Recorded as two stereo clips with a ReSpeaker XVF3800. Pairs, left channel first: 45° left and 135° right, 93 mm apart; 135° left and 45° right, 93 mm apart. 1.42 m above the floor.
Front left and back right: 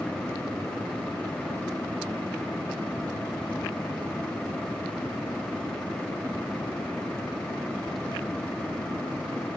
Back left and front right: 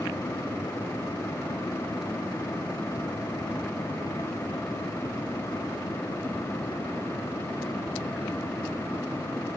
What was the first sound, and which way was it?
Only background noise.